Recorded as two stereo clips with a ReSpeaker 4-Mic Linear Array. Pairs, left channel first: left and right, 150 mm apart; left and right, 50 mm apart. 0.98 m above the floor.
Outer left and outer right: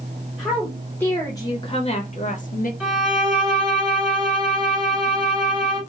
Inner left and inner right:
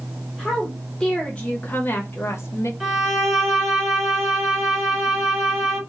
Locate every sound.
0.4 s a woman speaking: centre (ahead or behind), 1.3 m; by 2.7 s 65° left (ahead or behind), 1.1 m
2.8 s a violin: 10° right (ahead or behind), 3 m